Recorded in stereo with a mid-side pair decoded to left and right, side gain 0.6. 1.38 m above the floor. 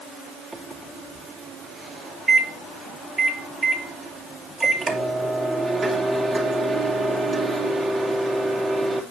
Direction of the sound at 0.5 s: 30° right.